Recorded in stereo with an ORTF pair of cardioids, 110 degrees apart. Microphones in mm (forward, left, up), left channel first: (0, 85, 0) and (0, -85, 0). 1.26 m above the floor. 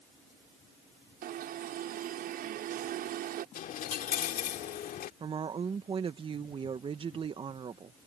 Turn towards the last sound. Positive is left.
turn(degrees=-30)